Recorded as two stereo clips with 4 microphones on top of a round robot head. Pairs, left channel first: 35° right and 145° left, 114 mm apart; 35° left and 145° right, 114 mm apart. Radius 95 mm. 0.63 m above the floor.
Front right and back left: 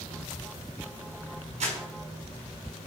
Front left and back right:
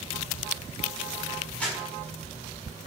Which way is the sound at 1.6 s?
115° left.